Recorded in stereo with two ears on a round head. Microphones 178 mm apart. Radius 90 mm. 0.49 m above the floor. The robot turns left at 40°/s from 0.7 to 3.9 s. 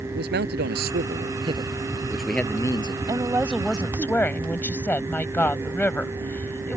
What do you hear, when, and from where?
0.1 s a man speaking: 120° right; by 3.0 s 150° left
3.1 s a woman speaking: 160° right; by 6.8 s 170° left